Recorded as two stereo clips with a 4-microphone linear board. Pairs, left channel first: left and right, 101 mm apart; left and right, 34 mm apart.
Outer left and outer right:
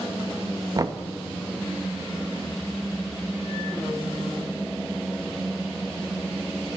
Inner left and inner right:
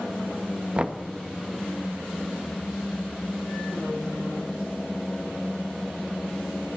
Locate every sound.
0.8 s knocking: 35° right (ahead or behind), 1.2 m